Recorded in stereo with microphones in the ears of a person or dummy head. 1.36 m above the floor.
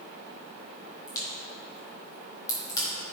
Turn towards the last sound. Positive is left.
turn(degrees=25)  # may be behind; listen again after turning